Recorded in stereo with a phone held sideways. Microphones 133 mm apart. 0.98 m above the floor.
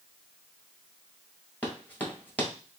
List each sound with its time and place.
1.6 s running footsteps: 15° left (ahead or behind), 1.2 m